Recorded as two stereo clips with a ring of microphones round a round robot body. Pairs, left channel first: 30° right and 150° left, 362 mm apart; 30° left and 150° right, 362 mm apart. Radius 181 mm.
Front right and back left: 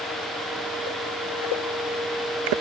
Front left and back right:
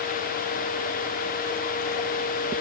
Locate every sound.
Only background noise.